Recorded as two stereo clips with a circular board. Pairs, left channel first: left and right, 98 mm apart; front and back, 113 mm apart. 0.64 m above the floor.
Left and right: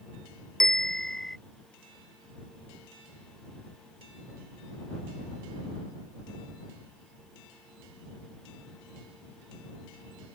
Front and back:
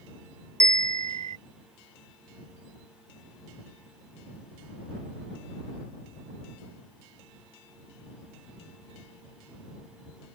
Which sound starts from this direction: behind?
A bell, at 0.6 s.